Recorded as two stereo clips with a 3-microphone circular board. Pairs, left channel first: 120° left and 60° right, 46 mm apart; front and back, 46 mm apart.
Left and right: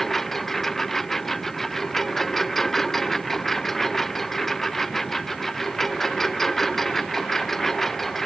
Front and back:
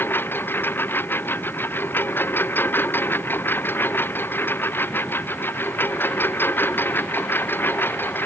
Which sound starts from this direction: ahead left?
A lawn mower, at 0.0 s.